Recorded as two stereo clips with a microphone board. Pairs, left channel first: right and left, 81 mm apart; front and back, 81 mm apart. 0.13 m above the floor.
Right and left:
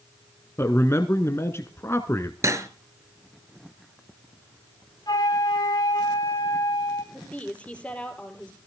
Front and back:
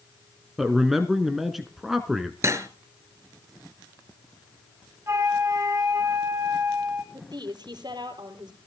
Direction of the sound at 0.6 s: 95° right.